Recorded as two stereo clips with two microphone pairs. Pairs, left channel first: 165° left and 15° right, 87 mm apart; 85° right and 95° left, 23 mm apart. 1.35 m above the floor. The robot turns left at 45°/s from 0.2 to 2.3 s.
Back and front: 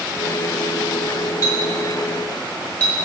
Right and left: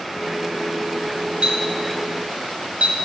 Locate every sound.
1.4 s a clink: 140° left, 1.5 m; by 3.0 s 100° left, 1.5 m